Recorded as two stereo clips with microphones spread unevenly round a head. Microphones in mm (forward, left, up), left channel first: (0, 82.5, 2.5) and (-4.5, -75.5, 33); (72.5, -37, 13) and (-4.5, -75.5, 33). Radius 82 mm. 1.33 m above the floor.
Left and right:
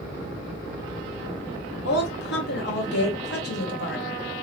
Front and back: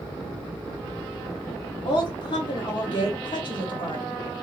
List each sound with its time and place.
1.9 s a woman speaking: 75° left, 1.3 m